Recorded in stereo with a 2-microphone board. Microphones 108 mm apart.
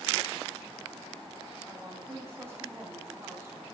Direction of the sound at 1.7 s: 20° right (ahead or behind).